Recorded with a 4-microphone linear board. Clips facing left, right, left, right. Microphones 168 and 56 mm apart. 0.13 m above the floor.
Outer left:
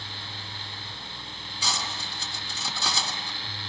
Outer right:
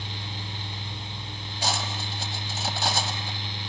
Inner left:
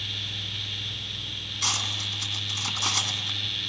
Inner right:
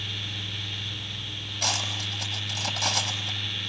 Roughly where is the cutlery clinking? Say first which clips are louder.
Outer right 4 dB, inner right 1 dB; right.